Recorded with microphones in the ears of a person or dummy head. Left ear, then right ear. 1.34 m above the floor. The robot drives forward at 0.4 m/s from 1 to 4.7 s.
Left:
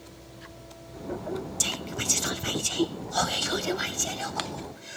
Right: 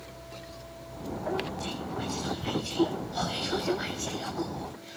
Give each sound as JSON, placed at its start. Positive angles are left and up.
{"t": 1.6, "sound": "whispering", "side_deg": 70, "distance_m": 0.7}